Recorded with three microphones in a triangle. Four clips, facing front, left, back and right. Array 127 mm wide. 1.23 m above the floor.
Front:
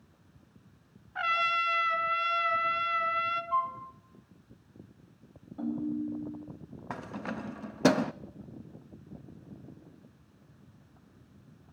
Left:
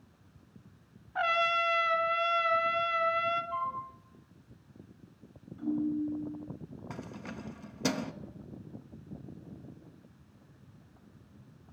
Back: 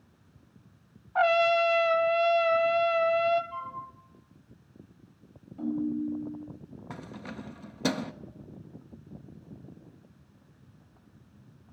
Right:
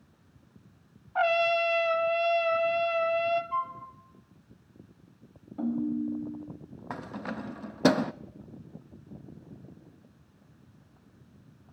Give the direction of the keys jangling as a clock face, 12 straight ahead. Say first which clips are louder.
Right 8 dB, front 5 dB; 2 o'clock.